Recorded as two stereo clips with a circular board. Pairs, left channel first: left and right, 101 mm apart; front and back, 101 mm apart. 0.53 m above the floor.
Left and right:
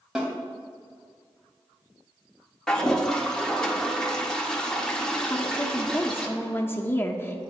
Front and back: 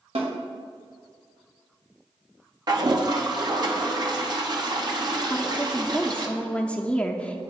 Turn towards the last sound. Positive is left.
turn(degrees=60)